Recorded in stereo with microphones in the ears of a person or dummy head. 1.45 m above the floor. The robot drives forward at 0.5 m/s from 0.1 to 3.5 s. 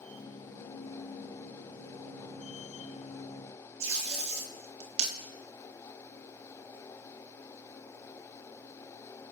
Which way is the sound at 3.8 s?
40° right (ahead or behind).